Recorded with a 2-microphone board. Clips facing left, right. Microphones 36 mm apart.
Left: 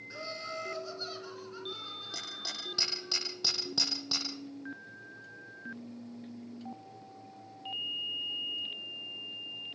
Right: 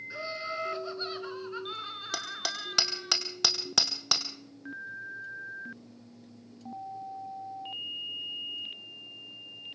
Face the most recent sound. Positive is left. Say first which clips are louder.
# right 8 dB
turn(degrees=-80)